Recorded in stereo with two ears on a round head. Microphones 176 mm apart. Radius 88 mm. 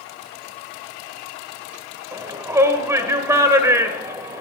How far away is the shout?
About 1.2 m.